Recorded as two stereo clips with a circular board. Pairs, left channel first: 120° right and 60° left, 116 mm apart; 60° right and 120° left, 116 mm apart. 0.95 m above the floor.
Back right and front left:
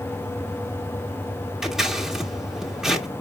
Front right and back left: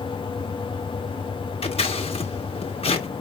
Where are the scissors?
25° right, 1.3 m.